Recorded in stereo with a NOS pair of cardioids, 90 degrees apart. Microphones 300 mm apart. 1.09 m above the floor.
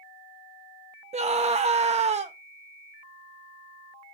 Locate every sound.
1.1 s a scream: 20° right, 1.0 m